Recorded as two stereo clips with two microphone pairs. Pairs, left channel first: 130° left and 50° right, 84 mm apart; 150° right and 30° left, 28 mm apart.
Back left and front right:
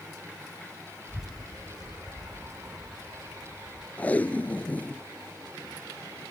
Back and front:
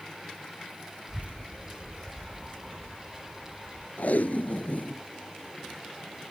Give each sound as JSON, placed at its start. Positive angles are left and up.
{"t": 1.1, "sound": "a child speaking", "azimuth_deg": 30}
{"t": 4.0, "sound": "tape being pulled", "azimuth_deg": -160}